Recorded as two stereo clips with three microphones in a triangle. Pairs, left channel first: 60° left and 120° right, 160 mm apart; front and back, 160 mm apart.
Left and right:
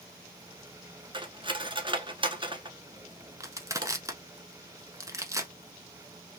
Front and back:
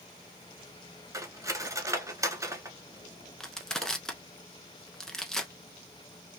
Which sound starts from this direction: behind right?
Cutlery clinking, at 1.1 s.